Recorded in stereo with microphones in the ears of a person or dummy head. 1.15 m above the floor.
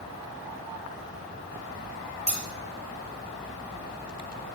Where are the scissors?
35° left (ahead or behind), 4 m.